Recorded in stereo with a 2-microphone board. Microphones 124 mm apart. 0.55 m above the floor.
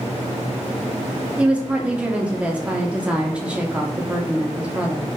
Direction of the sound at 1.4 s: 10° right (ahead or behind).